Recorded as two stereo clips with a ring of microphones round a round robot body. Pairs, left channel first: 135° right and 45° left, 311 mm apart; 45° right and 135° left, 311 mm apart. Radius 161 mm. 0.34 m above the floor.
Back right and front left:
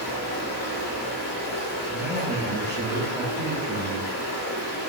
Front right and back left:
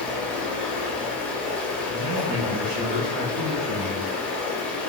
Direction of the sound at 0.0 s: 130° right.